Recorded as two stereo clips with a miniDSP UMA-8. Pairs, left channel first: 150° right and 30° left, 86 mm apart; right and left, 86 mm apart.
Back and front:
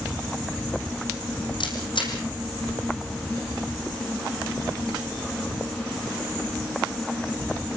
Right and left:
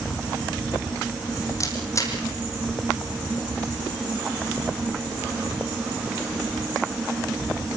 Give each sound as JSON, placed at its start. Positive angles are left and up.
{"t": 1.6, "sound": "a camera shutter", "azimuth_deg": -140, "distance_m": 6.0}